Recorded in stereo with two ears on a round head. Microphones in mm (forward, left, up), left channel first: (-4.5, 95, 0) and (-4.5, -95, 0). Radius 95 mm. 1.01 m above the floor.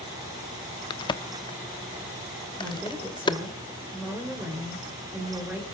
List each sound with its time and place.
0.9 s a crack: 20° left (ahead or behind), 1.0 m
2.6 s a woman speaking: 5° right (ahead or behind), 4 m